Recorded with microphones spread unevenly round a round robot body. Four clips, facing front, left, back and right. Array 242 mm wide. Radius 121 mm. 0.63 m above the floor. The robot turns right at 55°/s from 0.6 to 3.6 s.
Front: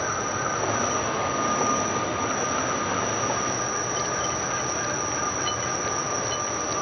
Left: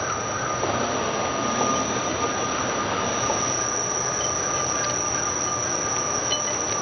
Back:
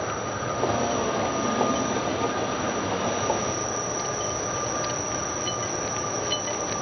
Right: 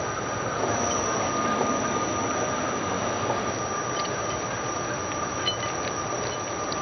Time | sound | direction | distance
0.0 | an insect | 45° right | 1.4 m